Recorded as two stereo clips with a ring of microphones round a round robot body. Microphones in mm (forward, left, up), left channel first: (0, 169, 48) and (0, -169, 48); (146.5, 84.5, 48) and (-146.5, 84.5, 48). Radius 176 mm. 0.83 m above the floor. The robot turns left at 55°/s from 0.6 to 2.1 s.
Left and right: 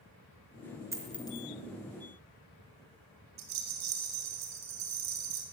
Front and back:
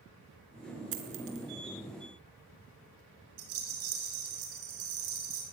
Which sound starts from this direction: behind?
A dropped coin, at 0.9 s.